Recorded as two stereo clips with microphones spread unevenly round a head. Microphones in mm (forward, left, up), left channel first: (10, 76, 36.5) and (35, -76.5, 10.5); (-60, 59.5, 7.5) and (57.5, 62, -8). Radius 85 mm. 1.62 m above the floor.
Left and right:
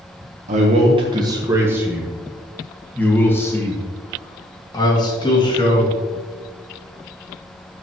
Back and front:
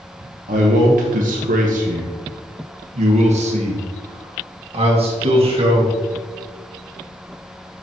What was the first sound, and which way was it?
A man speaking, 35° right.